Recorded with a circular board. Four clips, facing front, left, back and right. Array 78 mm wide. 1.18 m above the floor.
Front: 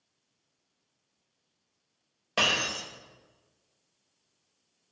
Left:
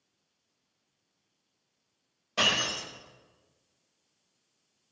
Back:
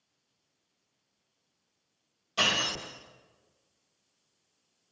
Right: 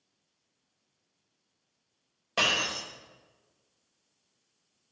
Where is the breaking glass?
30° right, 3 m.